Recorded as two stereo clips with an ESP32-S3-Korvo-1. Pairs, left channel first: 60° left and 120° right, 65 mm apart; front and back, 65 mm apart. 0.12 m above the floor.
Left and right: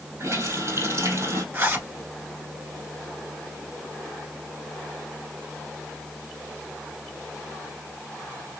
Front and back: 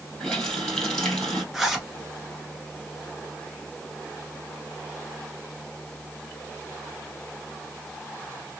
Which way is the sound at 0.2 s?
80° right.